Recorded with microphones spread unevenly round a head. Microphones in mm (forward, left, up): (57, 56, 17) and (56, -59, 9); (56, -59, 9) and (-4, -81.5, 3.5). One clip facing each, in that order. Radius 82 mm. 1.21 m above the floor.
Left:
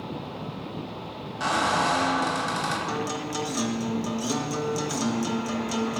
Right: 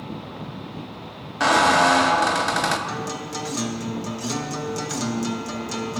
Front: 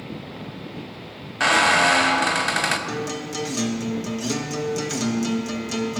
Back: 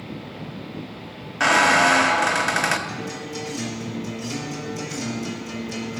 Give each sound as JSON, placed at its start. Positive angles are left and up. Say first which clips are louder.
{"t": 1.4, "sound": "a squeak", "louder": "right 7 dB, back 1 dB", "azimuth_deg": -75, "distance_m": 0.7}
{"t": 2.9, "sound": "a guitar", "louder": "even, front 3 dB", "azimuth_deg": 5, "distance_m": 0.9}